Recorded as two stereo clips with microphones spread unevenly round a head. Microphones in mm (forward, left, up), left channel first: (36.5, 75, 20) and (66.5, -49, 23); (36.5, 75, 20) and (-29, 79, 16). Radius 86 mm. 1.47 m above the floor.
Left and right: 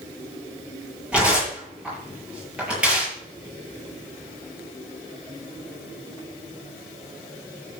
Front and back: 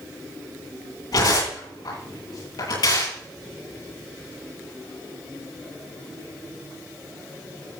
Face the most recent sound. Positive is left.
turn(degrees=5)